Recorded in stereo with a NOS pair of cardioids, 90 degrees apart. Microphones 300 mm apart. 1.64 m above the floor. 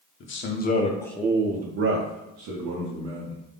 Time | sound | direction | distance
0.2 | a man speaking | 45° left | 0.8 m